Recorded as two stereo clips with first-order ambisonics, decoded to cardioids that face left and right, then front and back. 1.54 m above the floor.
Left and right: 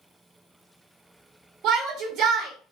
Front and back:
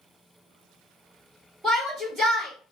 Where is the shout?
120° right, 2 m.